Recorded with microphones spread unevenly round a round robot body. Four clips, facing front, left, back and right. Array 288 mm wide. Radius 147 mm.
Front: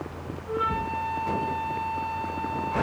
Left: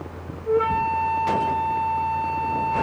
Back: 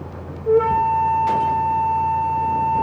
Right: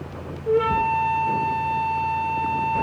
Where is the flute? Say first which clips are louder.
Right 1 dB, back 12 dB; 170° right, 0.9 m.